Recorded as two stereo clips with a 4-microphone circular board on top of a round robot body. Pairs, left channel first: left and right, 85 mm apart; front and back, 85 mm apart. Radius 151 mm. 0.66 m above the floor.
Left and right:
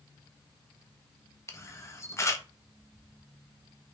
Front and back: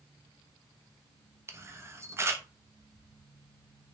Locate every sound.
1.5 s a camera shutter: 130° left, 0.9 m